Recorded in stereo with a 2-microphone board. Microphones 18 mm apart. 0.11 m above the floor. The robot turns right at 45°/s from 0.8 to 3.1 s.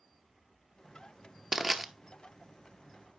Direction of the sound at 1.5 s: 20° right (ahead or behind).